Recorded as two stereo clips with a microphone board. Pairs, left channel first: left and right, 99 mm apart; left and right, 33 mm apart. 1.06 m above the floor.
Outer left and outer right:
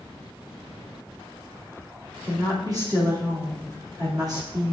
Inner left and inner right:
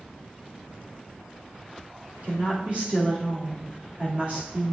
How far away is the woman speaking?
About 2.5 m.